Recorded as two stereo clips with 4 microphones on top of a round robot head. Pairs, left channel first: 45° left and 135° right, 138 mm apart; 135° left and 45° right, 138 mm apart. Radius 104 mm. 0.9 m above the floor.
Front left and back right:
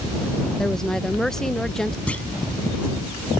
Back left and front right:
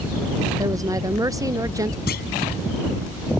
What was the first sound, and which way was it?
A woman speaking, 35° right.